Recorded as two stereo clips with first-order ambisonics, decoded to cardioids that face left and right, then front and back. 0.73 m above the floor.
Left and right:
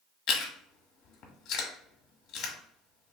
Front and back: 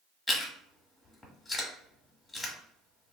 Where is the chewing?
75° left, 0.9 m.